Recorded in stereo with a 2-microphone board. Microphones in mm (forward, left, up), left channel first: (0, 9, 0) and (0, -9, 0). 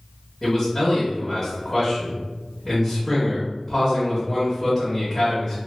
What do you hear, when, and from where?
0.4 s a man speaking: 35° left (ahead or behind), 1.1 m